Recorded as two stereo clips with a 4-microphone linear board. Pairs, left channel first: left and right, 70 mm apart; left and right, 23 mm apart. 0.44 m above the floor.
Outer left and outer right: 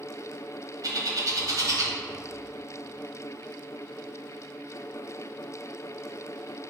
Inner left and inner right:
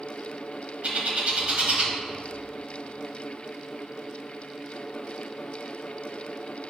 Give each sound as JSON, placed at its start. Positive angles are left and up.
{"t": 0.8, "sound": "a bird", "side_deg": -55, "distance_m": 1.1}